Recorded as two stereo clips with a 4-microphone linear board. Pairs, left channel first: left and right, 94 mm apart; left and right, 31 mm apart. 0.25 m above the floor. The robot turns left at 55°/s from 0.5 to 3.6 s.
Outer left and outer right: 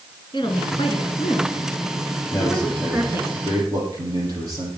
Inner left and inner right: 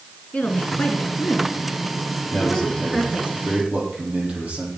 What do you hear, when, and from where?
0.3 s a woman speaking: 115° left, 2.5 m; by 3.3 s 40° right, 2.5 m
2.3 s a man speaking: 35° left, 6 m; by 4.7 s 35° right, 6 m